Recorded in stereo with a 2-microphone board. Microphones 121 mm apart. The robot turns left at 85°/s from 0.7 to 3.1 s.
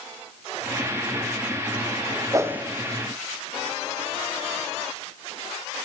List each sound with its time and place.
2.3 s a whoosh: 30° right (ahead or behind), 0.5 m; by 2.6 s 10° right (ahead or behind), 0.5 m